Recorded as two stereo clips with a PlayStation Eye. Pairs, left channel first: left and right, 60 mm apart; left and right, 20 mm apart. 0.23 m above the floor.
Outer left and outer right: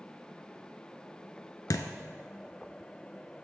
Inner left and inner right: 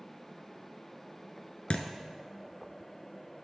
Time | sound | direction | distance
1.7 | a thud | 80° left | 0.7 m